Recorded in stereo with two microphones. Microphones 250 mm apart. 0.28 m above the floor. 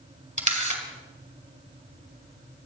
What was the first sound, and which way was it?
A camera shutter, 30° right (ahead or behind).